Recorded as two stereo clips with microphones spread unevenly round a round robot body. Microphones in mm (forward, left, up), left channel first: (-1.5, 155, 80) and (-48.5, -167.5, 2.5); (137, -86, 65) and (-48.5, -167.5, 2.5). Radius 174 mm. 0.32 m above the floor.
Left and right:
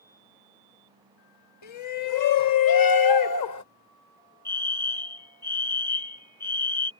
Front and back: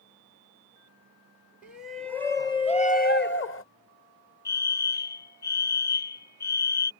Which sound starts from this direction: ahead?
A fire alarm, at 4.5 s.